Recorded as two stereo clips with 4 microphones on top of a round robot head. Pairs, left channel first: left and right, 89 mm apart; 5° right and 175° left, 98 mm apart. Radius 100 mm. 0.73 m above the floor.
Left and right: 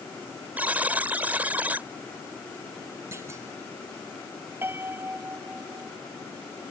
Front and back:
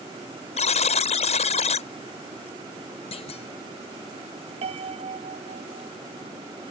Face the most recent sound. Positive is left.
turn(degrees=-155)